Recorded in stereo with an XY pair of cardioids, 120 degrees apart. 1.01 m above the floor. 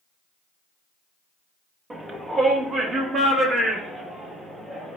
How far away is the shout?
About 1.0 m.